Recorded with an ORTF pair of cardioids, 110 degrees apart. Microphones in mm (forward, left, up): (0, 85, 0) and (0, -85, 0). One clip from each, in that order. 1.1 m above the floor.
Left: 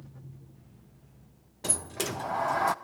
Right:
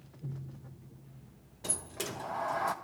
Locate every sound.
1.6 s a sliding door: 30° left, 0.5 m